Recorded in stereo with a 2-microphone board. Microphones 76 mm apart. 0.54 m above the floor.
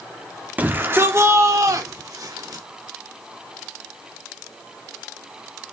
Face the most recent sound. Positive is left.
turn(degrees=-60)  # may be behind; listen again after turning